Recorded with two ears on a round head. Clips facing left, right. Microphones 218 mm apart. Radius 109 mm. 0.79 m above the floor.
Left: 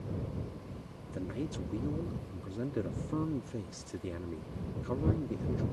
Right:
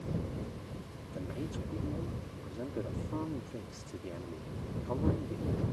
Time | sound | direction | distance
1.1 | a man speaking | 25° left (ahead or behind) | ?